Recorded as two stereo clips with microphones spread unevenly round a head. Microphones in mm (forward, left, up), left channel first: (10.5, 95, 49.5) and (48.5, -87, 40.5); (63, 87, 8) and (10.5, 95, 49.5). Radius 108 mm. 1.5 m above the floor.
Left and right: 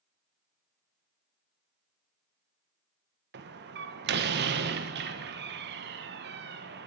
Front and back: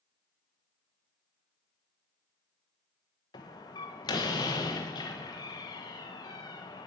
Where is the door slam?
50° right, 0.9 m.